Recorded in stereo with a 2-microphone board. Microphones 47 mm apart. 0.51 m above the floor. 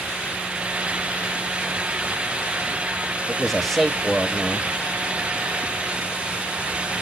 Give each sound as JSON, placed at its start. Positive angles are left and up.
{"t": 3.3, "sound": "a man speaking", "side_deg": 5, "distance_m": 2.5}